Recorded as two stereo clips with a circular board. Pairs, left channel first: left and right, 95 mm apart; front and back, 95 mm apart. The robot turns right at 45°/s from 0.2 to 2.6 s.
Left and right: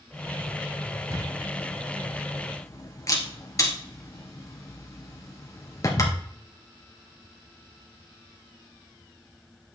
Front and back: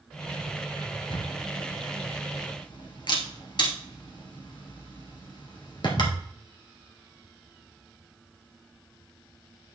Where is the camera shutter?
30° right, 1.9 m; by 6.2 s 35° left, 1.9 m.